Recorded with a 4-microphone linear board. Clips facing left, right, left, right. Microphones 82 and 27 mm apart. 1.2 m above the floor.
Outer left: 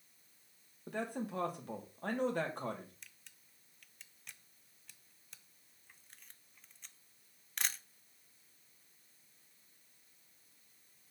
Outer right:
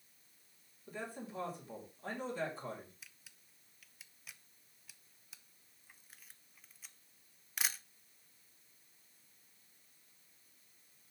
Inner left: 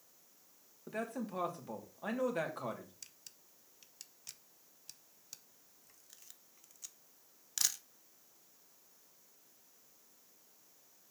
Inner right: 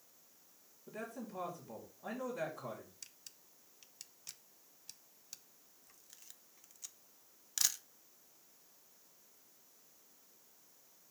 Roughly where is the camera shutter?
Centre.